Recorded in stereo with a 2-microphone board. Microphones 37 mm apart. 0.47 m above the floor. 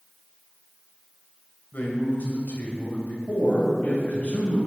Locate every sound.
1.7 s a man speaking: 60° left (ahead or behind), 2.5 m
3.3 s a man speaking: 40° left (ahead or behind), 3 m